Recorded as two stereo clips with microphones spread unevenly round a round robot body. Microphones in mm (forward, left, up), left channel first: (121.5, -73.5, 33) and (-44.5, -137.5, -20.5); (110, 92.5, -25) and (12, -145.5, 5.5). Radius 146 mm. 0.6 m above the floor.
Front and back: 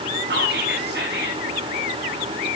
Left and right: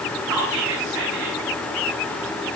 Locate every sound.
0.3 s whispering: 150° right, 3.5 m